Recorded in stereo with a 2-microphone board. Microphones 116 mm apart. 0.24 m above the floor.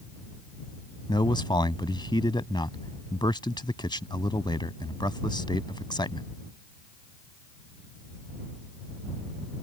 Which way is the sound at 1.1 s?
40° left (ahead or behind).